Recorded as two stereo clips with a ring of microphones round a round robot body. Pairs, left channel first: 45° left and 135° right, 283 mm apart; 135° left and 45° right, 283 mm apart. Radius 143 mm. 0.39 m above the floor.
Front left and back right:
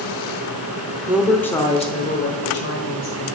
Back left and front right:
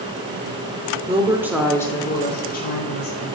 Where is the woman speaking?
65° right, 0.9 m; by 3.4 s 85° left, 1.8 m.